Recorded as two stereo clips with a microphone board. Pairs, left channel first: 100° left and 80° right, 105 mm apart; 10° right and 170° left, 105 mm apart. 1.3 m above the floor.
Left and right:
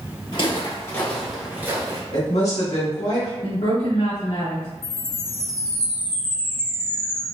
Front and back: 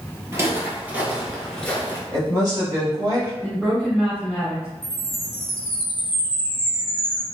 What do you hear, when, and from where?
0.3 s footsteps: 115° left, 1.8 m; by 2.0 s 70° right, 1.5 m
2.1 s a woman speaking: 115° left, 1.9 m
3.4 s a woman speaking: 85° left, 1.6 m
4.8 s a chime: 145° left, 1.1 m